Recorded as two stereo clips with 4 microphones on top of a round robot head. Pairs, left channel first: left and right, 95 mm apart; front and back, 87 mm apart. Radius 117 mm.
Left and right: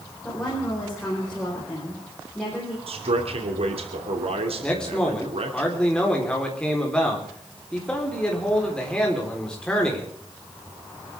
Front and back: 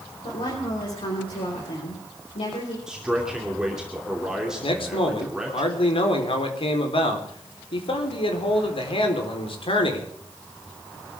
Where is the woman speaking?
5° left, 4.5 m.